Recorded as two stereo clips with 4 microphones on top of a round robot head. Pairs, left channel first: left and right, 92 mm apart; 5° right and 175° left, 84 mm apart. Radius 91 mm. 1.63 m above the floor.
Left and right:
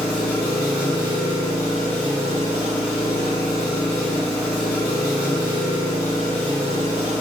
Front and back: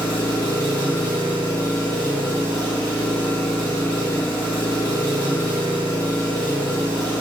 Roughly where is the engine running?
Behind.